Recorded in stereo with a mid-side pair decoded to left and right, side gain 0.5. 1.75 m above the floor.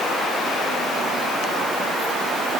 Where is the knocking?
I don't hear knocking.